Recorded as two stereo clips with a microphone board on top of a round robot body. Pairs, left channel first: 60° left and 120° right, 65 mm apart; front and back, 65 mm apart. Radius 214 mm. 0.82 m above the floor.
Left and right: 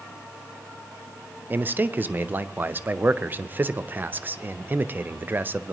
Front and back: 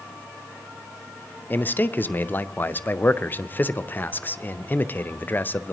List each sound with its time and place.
1.5 s a man speaking: 60° right, 0.7 m